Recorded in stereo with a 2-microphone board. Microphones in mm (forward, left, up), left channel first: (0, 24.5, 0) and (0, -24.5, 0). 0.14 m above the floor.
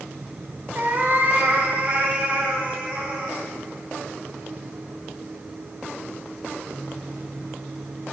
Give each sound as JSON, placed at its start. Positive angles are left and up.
{"t": 0.8, "sound": "a cat meowing", "side_deg": -40, "distance_m": 2.0}